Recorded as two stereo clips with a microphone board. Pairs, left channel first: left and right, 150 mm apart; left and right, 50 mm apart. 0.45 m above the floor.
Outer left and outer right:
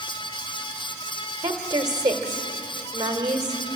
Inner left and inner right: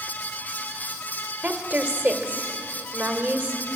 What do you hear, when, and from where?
1.4 s a woman speaking: 30° right (ahead or behind), 1.7 m